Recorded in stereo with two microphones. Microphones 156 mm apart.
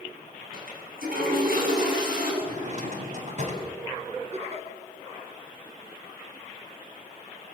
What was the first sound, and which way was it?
A toilet flushing, 75° right (ahead or behind).